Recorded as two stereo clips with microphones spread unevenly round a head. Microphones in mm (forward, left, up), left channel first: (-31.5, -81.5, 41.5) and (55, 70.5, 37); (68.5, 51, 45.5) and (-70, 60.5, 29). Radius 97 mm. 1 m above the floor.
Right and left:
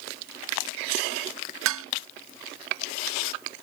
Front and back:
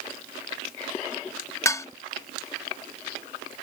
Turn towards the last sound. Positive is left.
turn(degrees=65)